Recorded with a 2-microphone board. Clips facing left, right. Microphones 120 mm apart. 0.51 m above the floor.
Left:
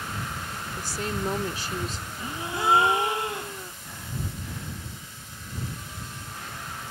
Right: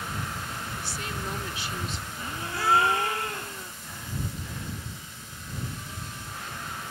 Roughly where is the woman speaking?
Left.